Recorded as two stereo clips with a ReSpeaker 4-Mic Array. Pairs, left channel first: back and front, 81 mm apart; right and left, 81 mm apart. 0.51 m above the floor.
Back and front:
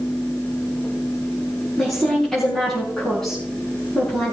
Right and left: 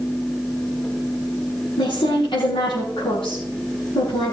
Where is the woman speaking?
95° right, 5.5 m.